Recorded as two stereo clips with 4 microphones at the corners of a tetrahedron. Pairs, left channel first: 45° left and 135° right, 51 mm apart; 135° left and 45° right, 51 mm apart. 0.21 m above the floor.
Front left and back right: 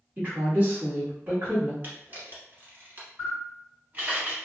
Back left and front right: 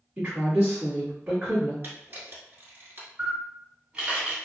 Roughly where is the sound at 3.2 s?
Right.